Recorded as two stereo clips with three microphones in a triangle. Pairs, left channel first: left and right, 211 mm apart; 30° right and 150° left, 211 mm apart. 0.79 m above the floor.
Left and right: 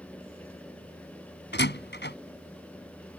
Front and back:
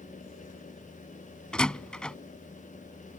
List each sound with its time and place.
1.5 s a door slam: 55° left